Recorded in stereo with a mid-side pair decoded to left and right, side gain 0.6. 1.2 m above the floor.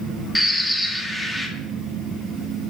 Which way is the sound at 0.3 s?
5° left.